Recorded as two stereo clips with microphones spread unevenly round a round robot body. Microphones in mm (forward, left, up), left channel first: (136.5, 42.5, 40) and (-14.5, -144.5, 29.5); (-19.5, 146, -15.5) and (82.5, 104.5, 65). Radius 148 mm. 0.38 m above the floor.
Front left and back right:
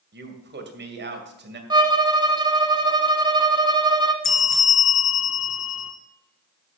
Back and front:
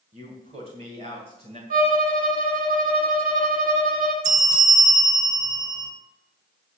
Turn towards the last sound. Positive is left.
turn(degrees=-5)